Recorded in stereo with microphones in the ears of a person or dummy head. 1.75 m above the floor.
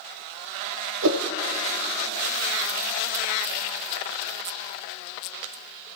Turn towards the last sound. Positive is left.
turn(degrees=-80)